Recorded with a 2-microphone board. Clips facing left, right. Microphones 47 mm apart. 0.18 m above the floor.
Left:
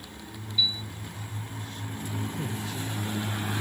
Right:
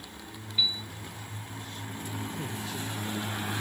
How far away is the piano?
About 2.0 m.